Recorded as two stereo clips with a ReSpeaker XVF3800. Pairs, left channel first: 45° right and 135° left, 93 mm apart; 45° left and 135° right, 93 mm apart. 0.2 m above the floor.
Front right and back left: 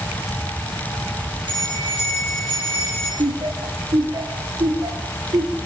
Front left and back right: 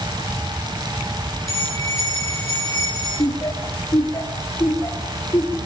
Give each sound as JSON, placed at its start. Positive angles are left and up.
{"t": 1.5, "sound": "a bell", "azimuth_deg": 105, "distance_m": 9.0}
{"t": 3.2, "sound": "laughter", "azimuth_deg": 100, "distance_m": 4.0}